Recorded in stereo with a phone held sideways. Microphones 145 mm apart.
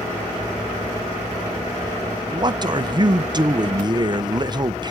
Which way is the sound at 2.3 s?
30° right (ahead or behind).